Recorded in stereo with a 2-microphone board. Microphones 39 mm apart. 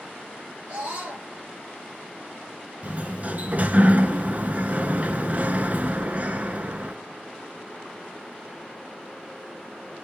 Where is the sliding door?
40° right (ahead or behind), 0.7 m.